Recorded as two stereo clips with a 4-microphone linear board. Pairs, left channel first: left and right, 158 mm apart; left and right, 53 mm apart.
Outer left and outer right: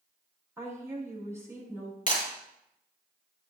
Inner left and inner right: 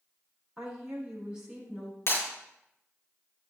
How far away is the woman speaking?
About 6 m.